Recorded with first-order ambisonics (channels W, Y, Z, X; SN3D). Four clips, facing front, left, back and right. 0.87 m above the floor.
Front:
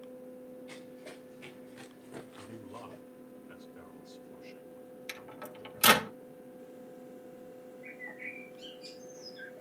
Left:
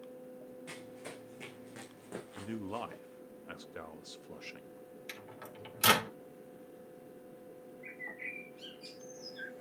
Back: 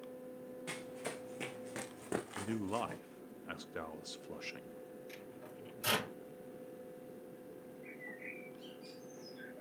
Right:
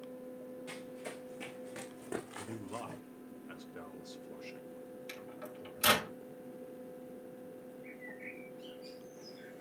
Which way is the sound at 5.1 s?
15° left.